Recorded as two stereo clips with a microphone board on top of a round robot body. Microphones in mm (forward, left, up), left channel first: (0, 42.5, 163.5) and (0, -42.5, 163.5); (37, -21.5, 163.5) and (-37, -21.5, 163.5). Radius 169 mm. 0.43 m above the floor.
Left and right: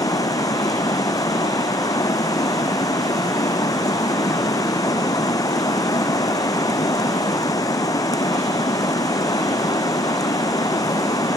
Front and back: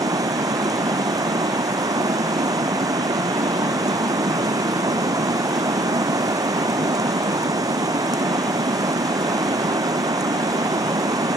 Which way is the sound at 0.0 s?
140° left.